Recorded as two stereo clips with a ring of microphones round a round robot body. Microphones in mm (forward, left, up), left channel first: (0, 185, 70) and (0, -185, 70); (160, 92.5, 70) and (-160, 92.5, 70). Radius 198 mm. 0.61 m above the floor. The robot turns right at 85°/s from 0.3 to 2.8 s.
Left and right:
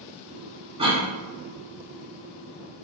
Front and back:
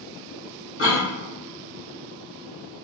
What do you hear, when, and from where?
0.8 s a cough: 25° right, 1.5 m; by 1.1 s straight ahead, 1.5 m